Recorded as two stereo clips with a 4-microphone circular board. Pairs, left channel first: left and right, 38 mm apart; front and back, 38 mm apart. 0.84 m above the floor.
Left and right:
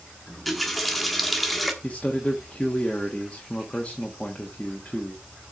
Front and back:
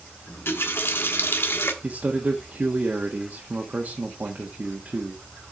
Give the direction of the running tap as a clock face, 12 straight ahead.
12 o'clock.